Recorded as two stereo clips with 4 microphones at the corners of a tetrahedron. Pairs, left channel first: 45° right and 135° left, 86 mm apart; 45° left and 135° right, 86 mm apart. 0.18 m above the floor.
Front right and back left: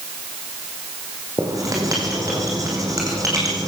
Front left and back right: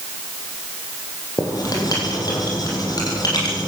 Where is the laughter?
No laughter in this recording.